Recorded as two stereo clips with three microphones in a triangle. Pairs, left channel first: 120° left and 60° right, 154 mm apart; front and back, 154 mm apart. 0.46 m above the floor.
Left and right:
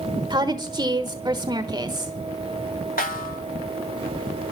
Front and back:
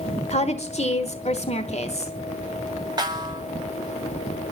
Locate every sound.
0.3 s a woman speaking: 10° right, 1.2 m
3.0 s a snare drum: 120° left, 2.0 m